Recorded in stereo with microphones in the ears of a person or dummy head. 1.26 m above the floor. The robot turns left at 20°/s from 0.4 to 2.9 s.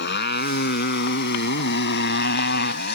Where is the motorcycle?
50° left (ahead or behind).